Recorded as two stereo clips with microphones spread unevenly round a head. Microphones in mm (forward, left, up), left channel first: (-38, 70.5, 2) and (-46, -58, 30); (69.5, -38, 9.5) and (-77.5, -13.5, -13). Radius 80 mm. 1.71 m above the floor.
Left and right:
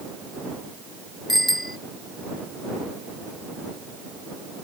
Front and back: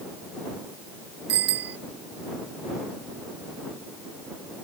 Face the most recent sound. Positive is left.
turn(degrees=175)